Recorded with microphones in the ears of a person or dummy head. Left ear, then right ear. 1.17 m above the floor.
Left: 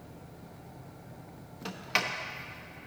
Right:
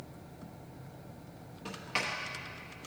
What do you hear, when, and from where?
1.6 s a sliding door: 35° left (ahead or behind), 0.9 m